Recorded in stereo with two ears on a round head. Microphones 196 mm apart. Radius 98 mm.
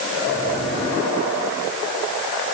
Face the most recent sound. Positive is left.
No sound to turn to.